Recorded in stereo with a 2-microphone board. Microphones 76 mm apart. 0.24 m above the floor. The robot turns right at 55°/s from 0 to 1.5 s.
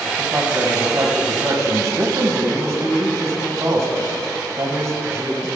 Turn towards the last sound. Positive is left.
turn(degrees=-85)